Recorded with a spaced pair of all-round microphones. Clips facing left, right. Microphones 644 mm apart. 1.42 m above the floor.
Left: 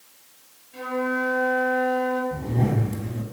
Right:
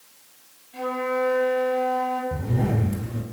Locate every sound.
0.7 s a flute: 10° right (ahead or behind), 7.5 m
2.3 s a zipper: 40° right (ahead or behind), 4.5 m